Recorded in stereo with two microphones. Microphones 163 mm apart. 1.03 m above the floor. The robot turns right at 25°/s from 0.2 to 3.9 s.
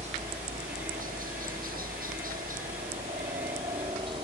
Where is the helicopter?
130° right; by 4.2 s 35° right.